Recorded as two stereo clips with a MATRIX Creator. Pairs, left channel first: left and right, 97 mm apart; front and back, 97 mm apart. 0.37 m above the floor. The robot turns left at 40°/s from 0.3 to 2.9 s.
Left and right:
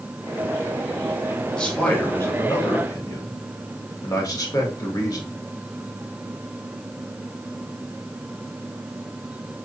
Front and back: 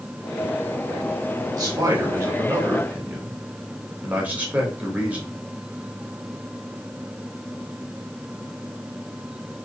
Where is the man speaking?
170° left, 1.2 m; by 5.3 s 115° left, 1.2 m.